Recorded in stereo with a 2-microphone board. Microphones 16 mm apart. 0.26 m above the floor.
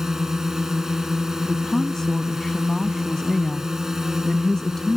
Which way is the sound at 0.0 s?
30° right (ahead or behind).